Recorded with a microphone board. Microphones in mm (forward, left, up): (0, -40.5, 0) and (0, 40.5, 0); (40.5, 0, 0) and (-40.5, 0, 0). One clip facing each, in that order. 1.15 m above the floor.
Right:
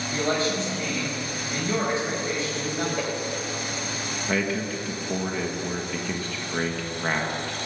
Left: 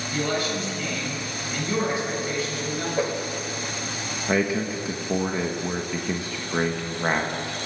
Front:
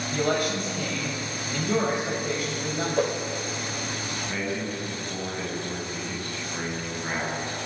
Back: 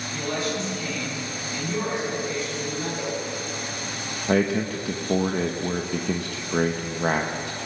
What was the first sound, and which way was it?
A man speaking, 30° right.